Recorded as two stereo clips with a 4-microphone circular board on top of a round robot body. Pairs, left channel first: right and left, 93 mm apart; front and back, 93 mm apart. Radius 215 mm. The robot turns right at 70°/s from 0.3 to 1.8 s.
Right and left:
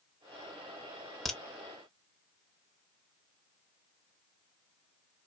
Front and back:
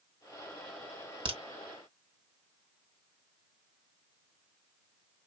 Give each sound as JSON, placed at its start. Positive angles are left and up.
{"t": 1.2, "sound": "a crack", "azimuth_deg": 180, "distance_m": 1.9}